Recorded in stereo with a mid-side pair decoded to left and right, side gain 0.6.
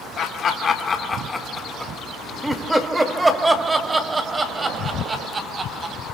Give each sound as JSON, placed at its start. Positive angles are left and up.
{"t": 0.2, "sound": "laughter", "azimuth_deg": 55, "distance_m": 1.8}